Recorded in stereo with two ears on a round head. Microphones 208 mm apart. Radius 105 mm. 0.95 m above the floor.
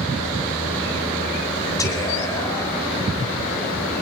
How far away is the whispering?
About 4 m.